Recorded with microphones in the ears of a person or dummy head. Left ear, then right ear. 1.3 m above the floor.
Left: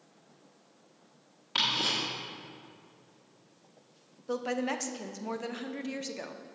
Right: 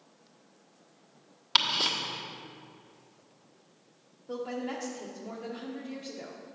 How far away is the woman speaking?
About 0.7 m.